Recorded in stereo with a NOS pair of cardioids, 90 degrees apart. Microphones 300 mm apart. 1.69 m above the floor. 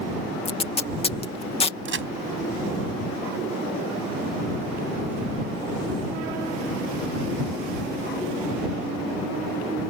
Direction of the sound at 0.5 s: 20° left.